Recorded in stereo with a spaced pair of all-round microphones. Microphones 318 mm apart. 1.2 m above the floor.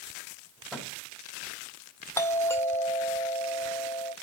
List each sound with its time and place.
0.7 s a microwave: centre (ahead or behind), 6 m
2.2 s a doorbell: 10° left (ahead or behind), 1.1 m